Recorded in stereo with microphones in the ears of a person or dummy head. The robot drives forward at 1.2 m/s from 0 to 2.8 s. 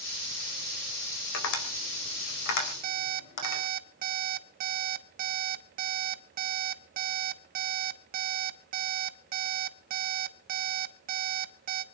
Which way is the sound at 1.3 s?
80° left.